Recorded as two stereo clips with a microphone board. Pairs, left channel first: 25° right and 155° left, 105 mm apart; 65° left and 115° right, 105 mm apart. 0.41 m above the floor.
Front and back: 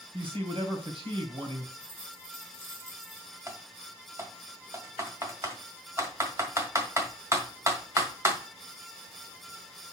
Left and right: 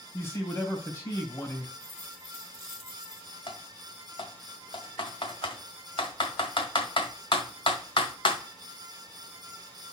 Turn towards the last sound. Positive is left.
turn(degrees=95)